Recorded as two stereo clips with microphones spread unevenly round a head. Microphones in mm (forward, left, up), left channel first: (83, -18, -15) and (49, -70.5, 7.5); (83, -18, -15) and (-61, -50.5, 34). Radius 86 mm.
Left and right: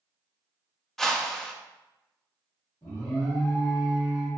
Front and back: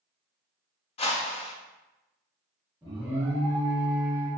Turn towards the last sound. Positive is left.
turn(degrees=115)